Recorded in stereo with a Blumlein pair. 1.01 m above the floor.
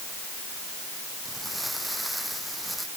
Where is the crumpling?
Straight ahead.